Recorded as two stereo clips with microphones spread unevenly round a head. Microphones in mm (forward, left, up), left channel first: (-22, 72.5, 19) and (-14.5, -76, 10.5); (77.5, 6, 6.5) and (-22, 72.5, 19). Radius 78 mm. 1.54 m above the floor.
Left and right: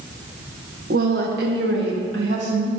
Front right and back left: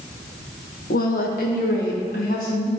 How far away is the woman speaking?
About 1.3 m.